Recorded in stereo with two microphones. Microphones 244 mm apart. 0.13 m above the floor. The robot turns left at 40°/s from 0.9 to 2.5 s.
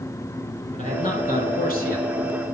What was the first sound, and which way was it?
A man speaking, 120° left.